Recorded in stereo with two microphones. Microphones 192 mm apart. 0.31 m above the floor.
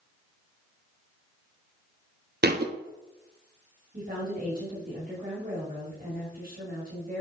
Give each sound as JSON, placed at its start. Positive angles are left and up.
{"t": 2.4, "sound": "a thud", "side_deg": -55, "distance_m": 0.8}
{"t": 3.9, "sound": "a woman speaking", "side_deg": -50, "distance_m": 2.0}